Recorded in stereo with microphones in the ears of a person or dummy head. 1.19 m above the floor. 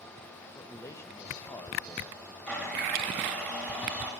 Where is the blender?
10° left (ahead or behind), 4 m.